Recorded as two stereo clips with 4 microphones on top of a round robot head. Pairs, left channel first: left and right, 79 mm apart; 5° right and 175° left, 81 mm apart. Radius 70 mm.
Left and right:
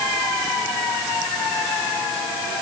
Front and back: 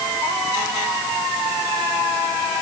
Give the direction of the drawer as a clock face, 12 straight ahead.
No drawer in this recording.